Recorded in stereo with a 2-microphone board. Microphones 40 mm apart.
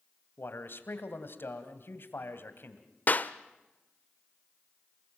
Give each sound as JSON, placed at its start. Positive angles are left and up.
{"t": 0.4, "sound": "a man speaking", "side_deg": 60, "distance_m": 2.5}
{"t": 3.1, "sound": "a clap", "side_deg": 45, "distance_m": 0.8}